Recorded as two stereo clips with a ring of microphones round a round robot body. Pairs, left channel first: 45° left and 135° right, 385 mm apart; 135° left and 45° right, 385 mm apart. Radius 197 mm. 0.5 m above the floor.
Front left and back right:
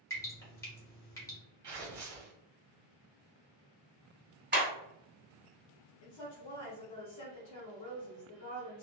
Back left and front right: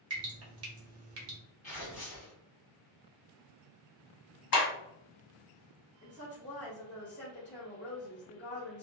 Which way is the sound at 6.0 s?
75° left.